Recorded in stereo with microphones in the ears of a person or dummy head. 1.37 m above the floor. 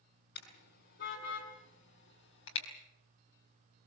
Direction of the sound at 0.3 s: 55° left (ahead or behind).